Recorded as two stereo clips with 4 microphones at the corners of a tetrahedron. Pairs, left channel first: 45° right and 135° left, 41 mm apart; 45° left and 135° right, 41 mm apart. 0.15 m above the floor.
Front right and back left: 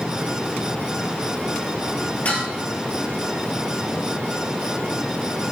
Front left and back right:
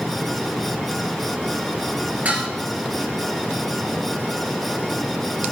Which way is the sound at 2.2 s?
90° right.